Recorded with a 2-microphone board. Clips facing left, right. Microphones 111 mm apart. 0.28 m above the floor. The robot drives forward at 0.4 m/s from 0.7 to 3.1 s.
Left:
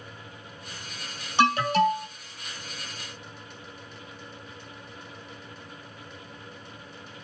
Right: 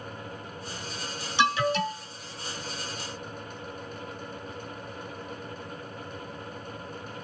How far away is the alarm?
About 2 m.